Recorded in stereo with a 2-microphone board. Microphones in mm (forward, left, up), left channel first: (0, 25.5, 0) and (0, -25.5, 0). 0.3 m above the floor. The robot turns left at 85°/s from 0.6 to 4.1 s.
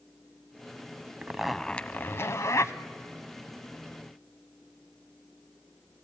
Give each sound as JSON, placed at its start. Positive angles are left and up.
{"t": 1.2, "sound": "a zipper", "azimuth_deg": -155, "distance_m": 0.8}